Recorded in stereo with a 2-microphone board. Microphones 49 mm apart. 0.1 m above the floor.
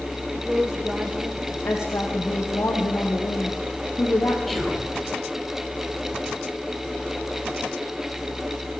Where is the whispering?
5° left (ahead or behind), 3 m.